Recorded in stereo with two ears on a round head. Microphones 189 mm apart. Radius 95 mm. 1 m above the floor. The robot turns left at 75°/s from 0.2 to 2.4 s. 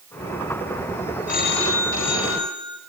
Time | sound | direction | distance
1.3 | a phone ringing | 140° left | 3.5 m